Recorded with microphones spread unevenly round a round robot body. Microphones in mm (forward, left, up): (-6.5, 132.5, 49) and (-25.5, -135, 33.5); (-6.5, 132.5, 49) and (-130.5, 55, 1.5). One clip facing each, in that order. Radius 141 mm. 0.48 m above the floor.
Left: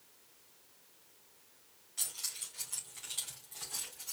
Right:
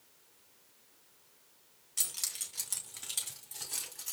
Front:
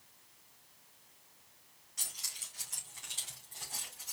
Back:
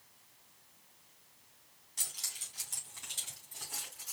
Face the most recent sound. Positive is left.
turn(degrees=-70)